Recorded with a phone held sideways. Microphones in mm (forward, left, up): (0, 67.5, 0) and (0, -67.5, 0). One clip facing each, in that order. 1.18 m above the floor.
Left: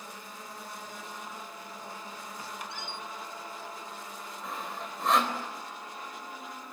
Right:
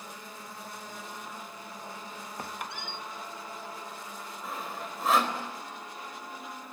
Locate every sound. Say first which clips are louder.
2.4 s a squeak: right 3 dB; 55° right (ahead or behind), 0.8 m
4.4 s sawing: even; 5° right (ahead or behind), 4 m